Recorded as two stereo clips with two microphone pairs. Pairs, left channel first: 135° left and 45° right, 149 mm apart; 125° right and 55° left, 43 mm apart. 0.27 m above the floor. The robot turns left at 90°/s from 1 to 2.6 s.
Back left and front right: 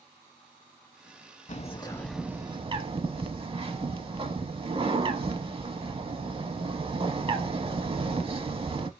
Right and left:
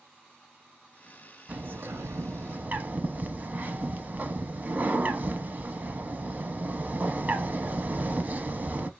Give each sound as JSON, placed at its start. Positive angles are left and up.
{"t": 1.5, "sound": "a bird", "azimuth_deg": 110, "distance_m": 0.5}